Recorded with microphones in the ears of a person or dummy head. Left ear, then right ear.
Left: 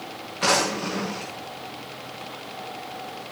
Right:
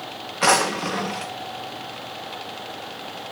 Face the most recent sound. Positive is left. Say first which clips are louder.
# right 3 dB
turn(degrees=-35)  # may be behind; listen again after turning